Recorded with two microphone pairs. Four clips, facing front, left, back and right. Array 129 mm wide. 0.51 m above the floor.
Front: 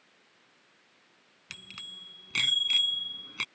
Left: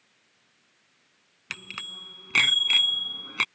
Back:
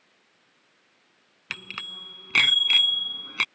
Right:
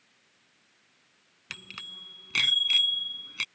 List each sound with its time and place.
1.5 s a bicycle bell: 160° left; by 3.5 s 125° left